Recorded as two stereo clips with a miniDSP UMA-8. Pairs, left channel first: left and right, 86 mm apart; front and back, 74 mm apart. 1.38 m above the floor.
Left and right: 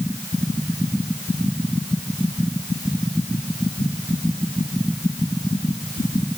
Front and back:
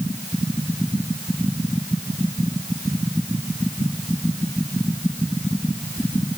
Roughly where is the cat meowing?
I don't hear a cat meowing.